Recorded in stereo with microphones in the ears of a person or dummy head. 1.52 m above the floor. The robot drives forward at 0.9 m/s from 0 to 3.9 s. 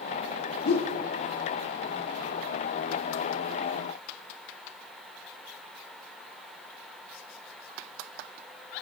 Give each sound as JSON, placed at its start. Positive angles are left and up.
{"t": 0.7, "sound": "a whoosh", "side_deg": 55, "distance_m": 1.1}